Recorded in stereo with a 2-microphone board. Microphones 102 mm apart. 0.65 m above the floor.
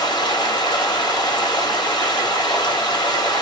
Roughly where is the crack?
No crack in this recording.